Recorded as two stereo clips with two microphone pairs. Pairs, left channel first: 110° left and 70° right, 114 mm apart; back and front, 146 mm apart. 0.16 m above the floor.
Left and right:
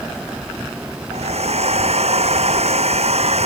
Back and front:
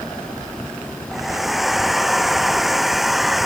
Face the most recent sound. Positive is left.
turn(degrees=-90)